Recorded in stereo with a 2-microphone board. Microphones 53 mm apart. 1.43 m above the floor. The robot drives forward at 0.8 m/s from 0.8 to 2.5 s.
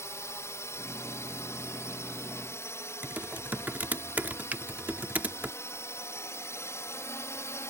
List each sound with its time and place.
0.0 s a drone: 60° left (ahead or behind); by 7.7 s 55° left (ahead or behind)
3.0 s typing on a keyboard: 35° right (ahead or behind)
4.5 s a finger snap: 30° right (ahead or behind)